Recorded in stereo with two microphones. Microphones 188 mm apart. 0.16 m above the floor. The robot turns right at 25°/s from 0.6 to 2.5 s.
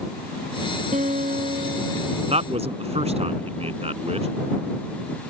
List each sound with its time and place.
0.9 s a guitar: 115° right; by 2.2 s 85° right
2.3 s a man speaking: 40° right (ahead or behind); by 4.3 s 35° right (ahead or behind)